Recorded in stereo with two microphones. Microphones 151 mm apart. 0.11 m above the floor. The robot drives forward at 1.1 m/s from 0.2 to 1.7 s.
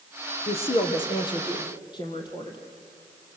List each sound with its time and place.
0.5 s a woman speaking: 45° left (ahead or behind), 2.5 m; by 2.6 s 30° left (ahead or behind), 3.5 m